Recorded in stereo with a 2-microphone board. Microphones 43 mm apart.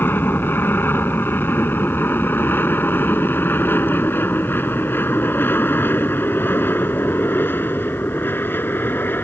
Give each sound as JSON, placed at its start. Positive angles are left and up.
{"t": 0.0, "sound": "an aircraft", "side_deg": 55}